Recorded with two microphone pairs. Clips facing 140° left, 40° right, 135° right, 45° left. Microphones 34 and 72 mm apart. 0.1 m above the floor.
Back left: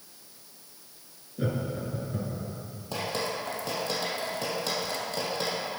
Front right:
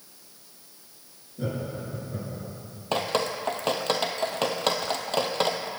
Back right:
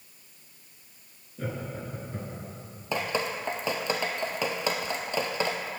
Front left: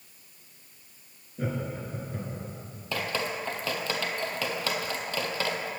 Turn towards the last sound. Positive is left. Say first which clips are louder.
# front right 5 dB, back right 2 dB
turn(degrees=-70)